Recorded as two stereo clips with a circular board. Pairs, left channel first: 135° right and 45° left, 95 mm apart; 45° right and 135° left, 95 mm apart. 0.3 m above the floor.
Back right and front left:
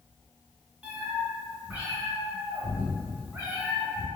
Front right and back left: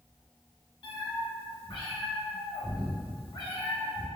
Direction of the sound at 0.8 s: 25° right.